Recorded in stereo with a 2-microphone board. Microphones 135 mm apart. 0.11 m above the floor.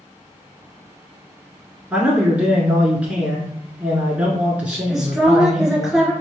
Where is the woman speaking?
5° right (ahead or behind), 1.3 m.